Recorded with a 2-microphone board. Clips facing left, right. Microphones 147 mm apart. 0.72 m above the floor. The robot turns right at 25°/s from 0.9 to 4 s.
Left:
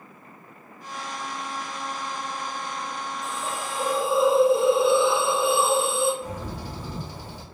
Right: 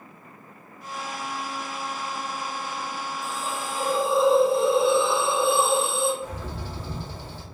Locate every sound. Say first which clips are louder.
3.2 s a hiss: even; 20° left (ahead or behind), 1.4 m; by 6.1 s 5° left (ahead or behind), 1.4 m
6.2 s a bird: left 1 dB; 15° left (ahead or behind), 1.2 m